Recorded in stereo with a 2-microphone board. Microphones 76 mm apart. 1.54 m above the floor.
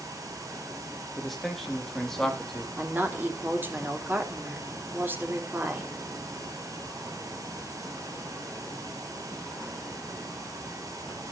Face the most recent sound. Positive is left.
turn(degrees=-25)  # may be behind; listen again after turning